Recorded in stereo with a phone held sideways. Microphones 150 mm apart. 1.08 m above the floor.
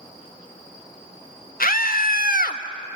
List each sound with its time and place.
1.6 s a scream: 70° left (ahead or behind), 1.4 m